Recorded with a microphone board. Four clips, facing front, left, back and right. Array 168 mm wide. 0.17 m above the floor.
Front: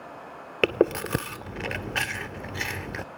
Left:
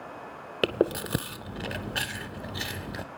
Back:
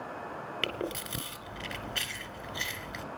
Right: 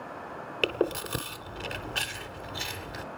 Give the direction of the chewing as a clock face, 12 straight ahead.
11 o'clock.